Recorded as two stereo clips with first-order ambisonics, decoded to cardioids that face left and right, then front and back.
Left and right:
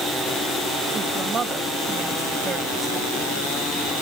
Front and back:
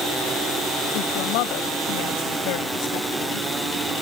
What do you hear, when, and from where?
0.9 s a woman speaking: 20° right; by 3.5 s 10° right